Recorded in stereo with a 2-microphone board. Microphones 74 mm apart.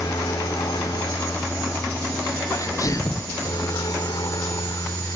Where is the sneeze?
45° left (ahead or behind).